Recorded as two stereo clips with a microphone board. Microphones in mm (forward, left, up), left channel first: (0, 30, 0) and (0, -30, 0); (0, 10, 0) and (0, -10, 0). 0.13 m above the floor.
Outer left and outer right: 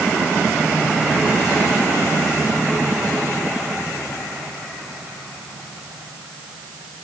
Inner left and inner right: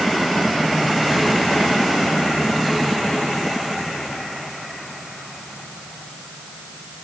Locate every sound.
Only background noise.